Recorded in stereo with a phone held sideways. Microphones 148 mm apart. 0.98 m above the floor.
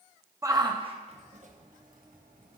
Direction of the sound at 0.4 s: 20° right (ahead or behind).